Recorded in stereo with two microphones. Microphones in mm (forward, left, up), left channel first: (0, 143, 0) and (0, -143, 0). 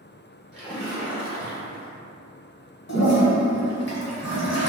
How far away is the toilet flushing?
About 0.9 m.